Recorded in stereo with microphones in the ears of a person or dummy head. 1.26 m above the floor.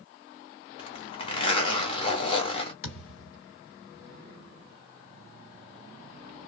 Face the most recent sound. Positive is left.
turn(degrees=65)  # may be behind; listen again after turning